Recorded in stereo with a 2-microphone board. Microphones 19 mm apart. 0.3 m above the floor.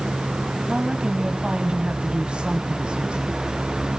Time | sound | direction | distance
0.7 | a woman speaking | 55° right (ahead or behind) | 2 m